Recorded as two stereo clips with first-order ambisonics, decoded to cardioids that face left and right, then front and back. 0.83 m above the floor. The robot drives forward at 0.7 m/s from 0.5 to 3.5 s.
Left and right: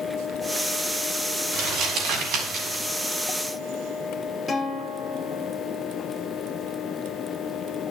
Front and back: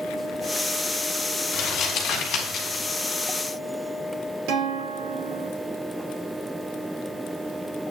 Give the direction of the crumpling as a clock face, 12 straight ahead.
2 o'clock.